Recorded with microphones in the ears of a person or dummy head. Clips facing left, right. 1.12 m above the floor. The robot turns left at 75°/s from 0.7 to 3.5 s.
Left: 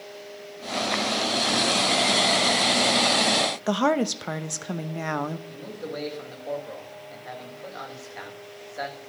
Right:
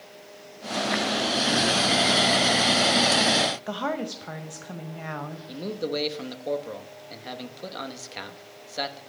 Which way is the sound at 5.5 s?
50° right (ahead or behind).